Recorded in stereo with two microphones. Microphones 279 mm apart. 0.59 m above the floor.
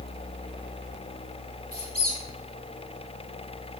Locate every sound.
1.7 s a squeak: 55° right (ahead or behind), 1.3 m